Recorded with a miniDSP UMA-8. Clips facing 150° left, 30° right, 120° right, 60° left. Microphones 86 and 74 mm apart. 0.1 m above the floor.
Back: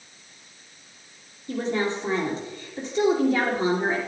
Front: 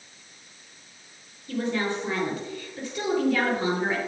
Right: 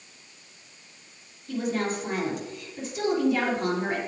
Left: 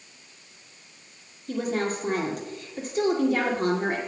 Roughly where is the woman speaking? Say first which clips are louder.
Back 1 dB, left 1 dB; left.